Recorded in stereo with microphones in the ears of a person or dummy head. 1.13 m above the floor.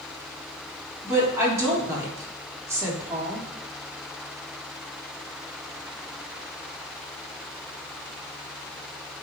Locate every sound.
1.0 s a woman speaking: 20° right (ahead or behind), 3 m